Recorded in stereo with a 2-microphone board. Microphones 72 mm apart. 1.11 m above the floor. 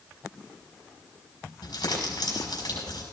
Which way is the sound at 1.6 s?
75° left (ahead or behind).